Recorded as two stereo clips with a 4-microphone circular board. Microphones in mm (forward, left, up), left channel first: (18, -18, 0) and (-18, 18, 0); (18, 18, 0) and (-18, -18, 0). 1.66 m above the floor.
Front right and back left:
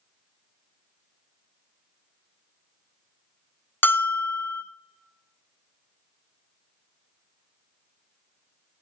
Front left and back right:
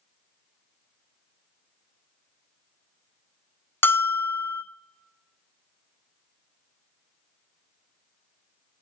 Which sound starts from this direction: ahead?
A bell, at 3.8 s.